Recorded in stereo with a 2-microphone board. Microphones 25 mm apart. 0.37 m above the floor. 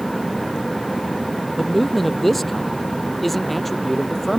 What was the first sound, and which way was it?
A man speaking, 5° left (ahead or behind).